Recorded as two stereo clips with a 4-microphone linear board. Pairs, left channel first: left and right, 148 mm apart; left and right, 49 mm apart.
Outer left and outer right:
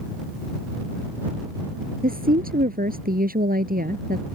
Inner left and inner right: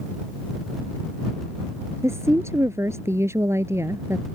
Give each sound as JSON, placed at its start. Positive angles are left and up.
{"t": 2.0, "sound": "a woman speaking", "side_deg": -80}